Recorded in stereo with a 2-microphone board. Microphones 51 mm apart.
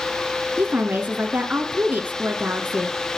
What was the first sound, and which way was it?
A woman speaking, 30° right (ahead or behind).